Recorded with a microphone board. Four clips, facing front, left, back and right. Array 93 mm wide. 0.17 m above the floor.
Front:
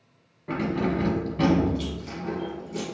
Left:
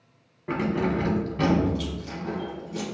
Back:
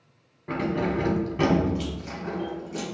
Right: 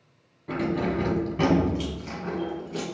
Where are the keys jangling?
95° left, 0.9 m; by 2.8 s 115° right, 1.3 m.